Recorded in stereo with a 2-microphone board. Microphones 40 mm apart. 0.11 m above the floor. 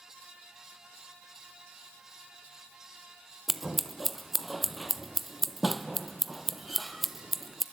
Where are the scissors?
Centre (ahead or behind), 0.7 m.